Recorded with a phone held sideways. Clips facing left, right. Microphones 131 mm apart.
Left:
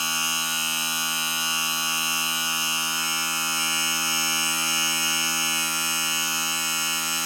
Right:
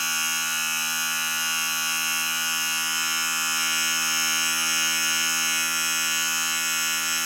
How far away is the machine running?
About 1.5 m.